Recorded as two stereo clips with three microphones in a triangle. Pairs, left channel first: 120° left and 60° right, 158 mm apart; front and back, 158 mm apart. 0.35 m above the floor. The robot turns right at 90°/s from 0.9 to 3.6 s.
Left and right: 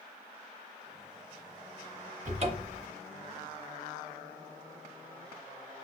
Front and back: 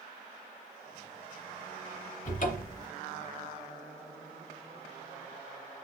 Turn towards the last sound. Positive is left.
turn(degrees=90)